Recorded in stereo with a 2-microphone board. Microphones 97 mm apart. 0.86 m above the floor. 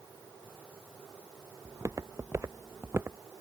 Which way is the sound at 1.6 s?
35° right (ahead or behind).